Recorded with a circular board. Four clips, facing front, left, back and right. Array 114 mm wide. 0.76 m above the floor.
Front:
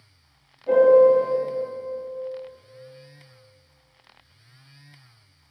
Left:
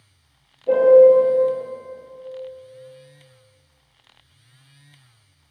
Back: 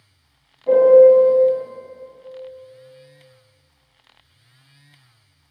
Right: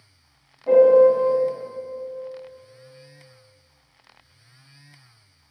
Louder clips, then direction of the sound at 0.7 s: Left 2 dB, back 5 dB; 120° right.